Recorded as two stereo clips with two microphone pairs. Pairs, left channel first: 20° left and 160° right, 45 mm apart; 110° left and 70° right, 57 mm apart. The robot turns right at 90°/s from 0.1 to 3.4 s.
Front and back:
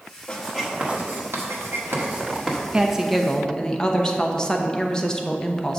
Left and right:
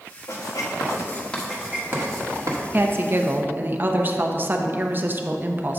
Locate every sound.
0.3 s writing: 90° left, 1.4 m; by 2.6 s 60° right, 1.4 m
2.7 s a woman speaking: 105° right, 0.7 m; by 5.8 s 45° right, 0.7 m